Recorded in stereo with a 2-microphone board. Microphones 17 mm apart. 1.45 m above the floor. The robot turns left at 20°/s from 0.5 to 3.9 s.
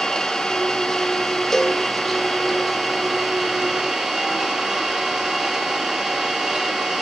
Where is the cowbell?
20° left (ahead or behind), 0.8 m.